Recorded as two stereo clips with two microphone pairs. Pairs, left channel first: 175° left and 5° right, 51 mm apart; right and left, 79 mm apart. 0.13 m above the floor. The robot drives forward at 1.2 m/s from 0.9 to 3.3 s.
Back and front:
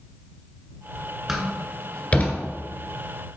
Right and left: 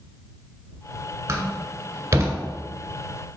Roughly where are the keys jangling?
No keys jangling in this recording.